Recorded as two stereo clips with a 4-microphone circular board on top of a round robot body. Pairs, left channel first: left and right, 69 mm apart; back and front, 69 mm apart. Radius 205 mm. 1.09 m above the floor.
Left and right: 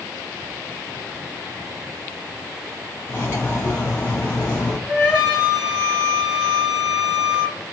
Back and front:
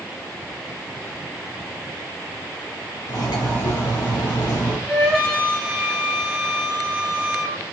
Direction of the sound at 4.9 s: 85° left.